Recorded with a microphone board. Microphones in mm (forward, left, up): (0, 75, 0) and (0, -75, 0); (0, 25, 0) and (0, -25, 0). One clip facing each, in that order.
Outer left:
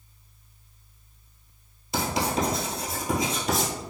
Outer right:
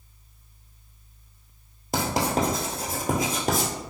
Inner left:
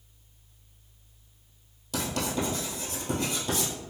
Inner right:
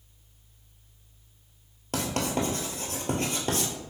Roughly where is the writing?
Right.